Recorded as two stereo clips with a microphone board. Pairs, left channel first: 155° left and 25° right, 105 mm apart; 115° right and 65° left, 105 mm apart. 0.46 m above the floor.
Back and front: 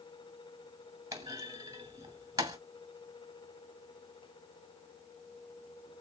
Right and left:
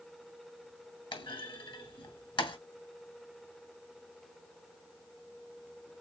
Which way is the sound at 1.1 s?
75° right.